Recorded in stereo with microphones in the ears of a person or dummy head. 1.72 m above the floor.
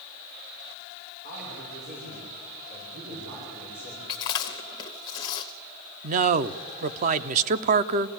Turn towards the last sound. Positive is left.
turn(degrees=-40)  # may be behind; listen again after turning